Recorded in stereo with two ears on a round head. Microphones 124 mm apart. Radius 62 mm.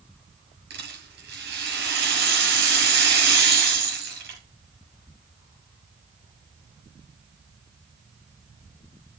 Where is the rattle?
85° right, 6.5 m.